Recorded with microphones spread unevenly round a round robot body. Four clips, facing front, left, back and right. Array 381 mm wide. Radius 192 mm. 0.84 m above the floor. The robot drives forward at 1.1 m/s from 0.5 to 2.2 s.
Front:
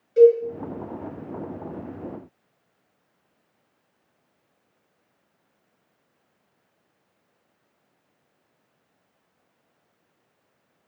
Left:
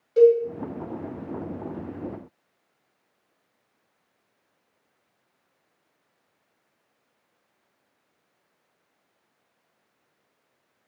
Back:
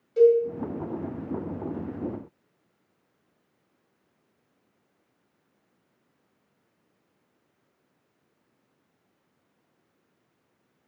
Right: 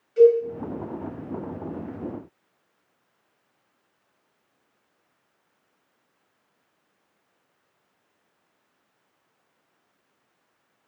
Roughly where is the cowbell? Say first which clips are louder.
Even, front 4 dB; ahead left.